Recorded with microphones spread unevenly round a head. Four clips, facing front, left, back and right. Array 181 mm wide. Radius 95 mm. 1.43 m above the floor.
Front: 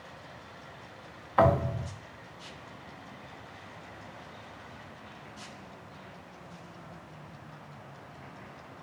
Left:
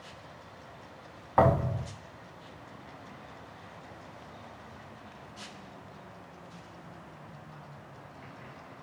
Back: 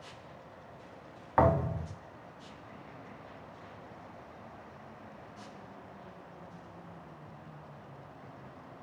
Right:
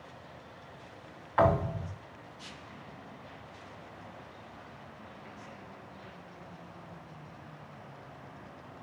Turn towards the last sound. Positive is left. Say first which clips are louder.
# left 2 dB, front 2 dB
turn(degrees=120)